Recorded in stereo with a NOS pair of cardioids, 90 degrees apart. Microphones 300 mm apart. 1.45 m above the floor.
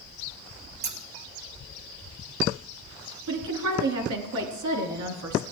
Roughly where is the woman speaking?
Right.